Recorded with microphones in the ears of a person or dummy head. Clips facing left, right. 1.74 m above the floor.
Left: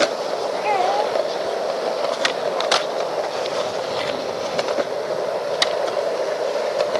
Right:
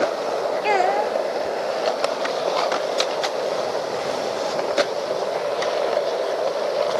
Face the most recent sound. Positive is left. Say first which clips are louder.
# left 1 dB
turn(degrees=-15)  # may be behind; listen again after turning